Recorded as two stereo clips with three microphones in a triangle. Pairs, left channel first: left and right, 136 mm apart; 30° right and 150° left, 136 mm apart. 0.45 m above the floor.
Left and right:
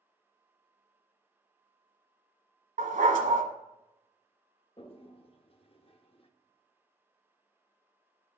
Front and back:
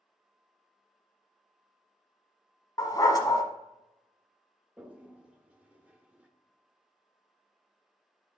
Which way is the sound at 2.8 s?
95° right.